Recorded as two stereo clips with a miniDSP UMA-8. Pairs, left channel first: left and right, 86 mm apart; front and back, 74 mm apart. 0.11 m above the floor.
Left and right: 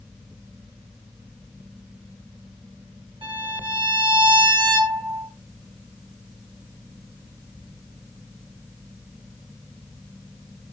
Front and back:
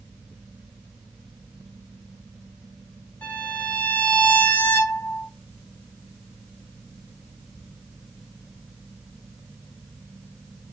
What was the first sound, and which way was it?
A violin, 70° right.